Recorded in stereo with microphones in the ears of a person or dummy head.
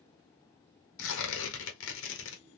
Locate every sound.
1.0 s tearing paper: 75° left (ahead or behind), 1.3 m